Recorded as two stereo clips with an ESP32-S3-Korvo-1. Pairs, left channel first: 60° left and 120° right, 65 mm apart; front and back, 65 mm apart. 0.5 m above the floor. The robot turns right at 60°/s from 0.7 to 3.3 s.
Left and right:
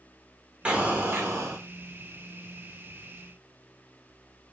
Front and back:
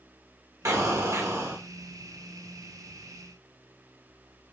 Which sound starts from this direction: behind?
An explosion, at 0.7 s.